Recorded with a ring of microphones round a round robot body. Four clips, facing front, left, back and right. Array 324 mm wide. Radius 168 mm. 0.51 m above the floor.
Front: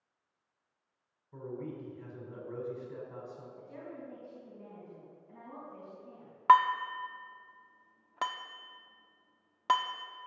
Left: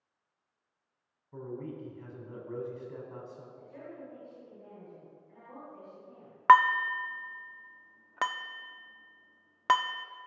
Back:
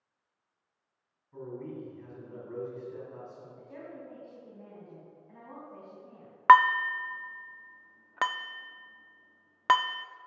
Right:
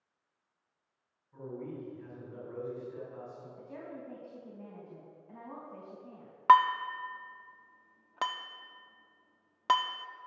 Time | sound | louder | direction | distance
1.3 | a man speaking | left 1 dB, back 1 dB | 65° left | 5 m
3.6 | a woman speaking | right 3 dB, back 2 dB | 110° right | 4 m
6.5 | dishes clattering | left 2 dB, back 4 dB | 155° left | 0.5 m